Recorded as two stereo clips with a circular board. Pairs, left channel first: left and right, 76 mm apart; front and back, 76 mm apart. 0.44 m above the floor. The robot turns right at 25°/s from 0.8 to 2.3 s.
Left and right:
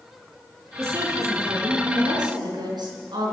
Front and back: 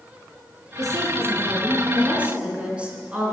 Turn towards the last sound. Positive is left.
turn(degrees=-105)